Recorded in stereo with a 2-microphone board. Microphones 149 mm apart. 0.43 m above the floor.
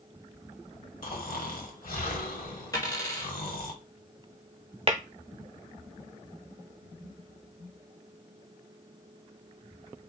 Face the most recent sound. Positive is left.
turn(degrees=-40)  # may be behind; listen again after turning